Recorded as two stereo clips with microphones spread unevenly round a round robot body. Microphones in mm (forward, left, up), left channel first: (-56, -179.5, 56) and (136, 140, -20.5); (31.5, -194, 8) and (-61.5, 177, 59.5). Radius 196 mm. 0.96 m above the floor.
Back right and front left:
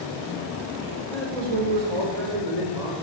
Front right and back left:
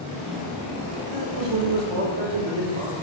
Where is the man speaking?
60° left, 2.5 m.